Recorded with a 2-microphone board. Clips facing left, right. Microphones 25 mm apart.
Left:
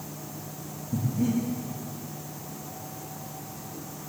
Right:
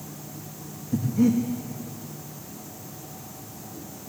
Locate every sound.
0.9 s breathing: 60° right (ahead or behind), 4 m